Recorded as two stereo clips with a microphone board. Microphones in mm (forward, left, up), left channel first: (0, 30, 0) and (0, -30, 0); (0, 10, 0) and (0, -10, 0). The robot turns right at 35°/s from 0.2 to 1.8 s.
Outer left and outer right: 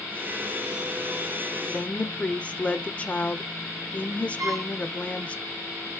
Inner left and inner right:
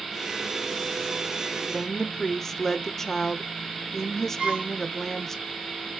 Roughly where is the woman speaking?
Left.